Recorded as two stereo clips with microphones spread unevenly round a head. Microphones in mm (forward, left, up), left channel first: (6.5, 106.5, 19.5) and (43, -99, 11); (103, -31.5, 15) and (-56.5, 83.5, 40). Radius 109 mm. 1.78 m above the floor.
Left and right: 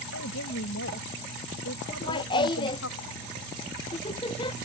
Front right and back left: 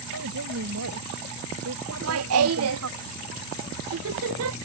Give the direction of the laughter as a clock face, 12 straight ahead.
6 o'clock.